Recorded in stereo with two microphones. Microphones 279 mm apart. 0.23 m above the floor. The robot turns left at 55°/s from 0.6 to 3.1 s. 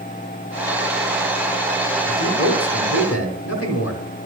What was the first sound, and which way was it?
A man speaking, 135° left.